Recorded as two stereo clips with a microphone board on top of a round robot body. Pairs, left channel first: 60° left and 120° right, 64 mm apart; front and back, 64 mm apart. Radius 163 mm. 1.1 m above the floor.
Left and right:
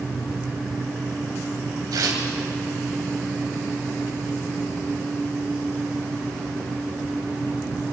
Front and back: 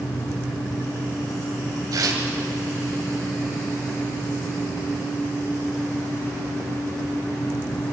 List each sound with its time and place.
1.9 s tearing paper: 145° right, 2.5 m